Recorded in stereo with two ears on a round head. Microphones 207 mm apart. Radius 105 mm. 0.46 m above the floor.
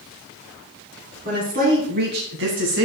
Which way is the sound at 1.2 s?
35° right (ahead or behind).